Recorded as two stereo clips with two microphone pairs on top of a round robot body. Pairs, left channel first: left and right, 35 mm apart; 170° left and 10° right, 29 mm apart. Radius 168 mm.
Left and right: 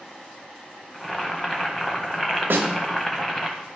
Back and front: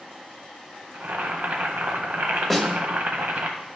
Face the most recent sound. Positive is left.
turn(degrees=-100)